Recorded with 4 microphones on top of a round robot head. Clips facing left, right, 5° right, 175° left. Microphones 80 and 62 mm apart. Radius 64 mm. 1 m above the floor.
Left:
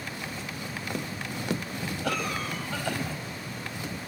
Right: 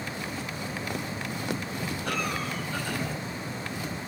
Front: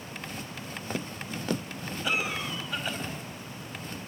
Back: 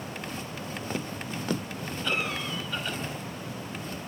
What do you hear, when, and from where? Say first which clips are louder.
2.0 s a cough: left 1 dB, even; 75° left, 5.5 m